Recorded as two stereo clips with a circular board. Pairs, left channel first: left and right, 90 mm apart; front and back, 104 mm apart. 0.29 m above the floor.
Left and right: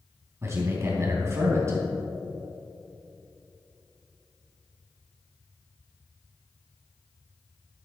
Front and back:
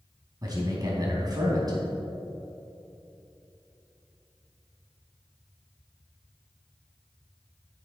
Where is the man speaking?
140° right, 2.5 m.